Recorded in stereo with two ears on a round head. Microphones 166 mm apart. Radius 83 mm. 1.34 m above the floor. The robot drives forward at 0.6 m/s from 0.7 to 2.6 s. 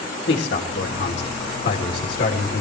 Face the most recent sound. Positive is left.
turn(degrees=45)  # may be behind; listen again after turning